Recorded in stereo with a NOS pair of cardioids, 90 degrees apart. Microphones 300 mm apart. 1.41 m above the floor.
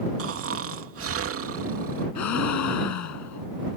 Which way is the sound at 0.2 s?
50° right.